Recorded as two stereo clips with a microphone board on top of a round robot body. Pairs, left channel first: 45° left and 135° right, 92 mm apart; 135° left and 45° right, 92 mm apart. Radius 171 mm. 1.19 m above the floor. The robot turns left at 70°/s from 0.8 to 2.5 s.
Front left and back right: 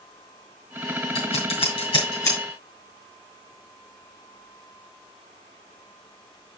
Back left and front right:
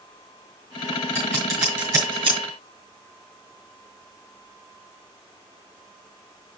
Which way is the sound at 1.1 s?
70° left.